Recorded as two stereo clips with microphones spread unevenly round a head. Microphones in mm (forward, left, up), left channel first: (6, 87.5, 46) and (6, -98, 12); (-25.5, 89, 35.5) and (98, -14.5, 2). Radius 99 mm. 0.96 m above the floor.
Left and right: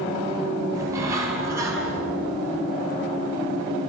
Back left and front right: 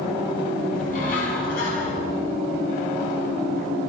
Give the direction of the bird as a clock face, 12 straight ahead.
6 o'clock.